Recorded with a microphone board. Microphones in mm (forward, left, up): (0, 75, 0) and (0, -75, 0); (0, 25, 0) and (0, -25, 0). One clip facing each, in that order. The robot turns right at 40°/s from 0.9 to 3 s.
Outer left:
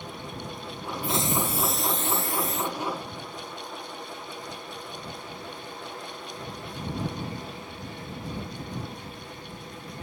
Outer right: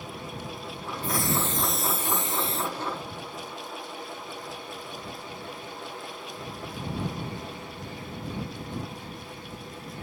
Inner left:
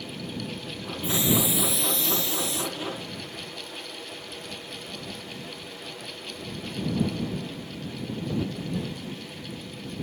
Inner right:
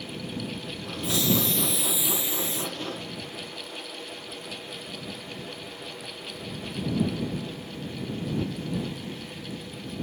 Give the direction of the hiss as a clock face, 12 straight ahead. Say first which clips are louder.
Outer left 1 dB, inner left 1 dB; 7 o'clock.